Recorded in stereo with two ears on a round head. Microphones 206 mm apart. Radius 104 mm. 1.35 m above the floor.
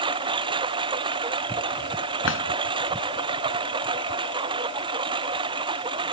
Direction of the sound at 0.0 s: 20° right (ahead or behind).